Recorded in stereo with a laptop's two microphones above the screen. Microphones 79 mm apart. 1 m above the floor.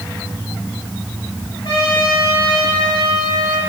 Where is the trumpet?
75° left (ahead or behind), 6 m.